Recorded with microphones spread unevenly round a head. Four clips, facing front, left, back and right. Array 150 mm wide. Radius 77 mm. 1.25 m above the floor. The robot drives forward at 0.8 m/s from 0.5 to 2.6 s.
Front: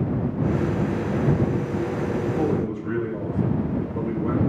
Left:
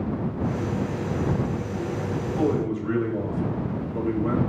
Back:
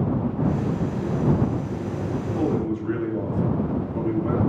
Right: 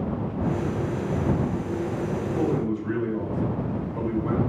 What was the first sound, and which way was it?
A man speaking, 125° left.